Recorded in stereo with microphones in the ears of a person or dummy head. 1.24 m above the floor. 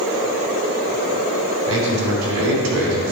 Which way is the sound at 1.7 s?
80° right.